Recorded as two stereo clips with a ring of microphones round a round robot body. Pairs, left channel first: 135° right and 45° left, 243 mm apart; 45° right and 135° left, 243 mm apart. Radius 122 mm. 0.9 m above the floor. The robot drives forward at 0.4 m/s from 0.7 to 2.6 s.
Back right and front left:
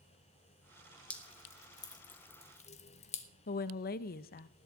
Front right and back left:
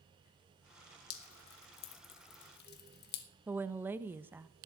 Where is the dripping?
50° right, 1.4 m; by 3.3 s 80° right, 1.2 m.